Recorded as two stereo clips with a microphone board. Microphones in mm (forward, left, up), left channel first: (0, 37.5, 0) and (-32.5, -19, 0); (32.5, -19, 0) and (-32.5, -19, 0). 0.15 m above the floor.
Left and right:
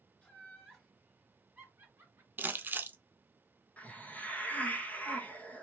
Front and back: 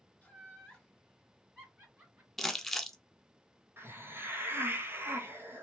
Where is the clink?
I don't hear a clink.